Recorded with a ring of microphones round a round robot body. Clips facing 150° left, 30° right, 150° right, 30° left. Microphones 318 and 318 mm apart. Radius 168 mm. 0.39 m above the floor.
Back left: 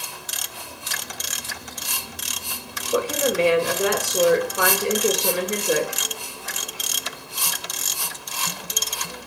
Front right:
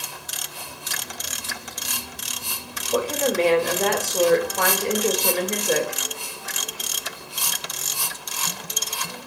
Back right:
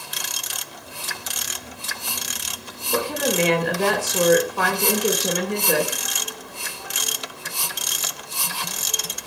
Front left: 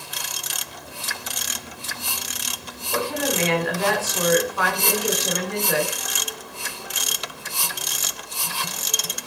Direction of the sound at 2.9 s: 135° right.